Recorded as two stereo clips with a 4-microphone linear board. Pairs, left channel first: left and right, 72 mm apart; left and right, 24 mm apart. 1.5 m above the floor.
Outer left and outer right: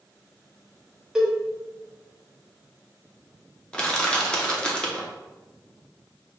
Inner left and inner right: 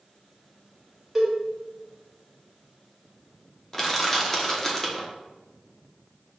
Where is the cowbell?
10° right (ahead or behind), 1.0 m.